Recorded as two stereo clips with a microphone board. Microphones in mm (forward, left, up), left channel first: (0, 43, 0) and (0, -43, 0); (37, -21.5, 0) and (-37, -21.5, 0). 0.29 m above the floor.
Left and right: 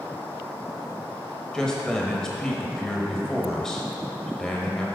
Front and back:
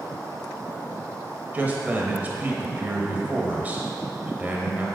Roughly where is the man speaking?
Behind.